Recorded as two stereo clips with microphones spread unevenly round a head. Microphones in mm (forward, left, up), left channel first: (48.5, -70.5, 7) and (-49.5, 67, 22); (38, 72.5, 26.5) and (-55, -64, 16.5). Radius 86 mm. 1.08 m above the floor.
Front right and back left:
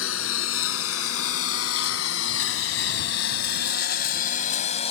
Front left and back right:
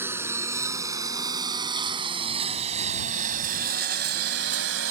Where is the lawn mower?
45° right; by 4.9 s 110° right.